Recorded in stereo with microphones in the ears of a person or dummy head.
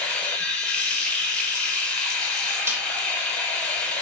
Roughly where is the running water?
Centre.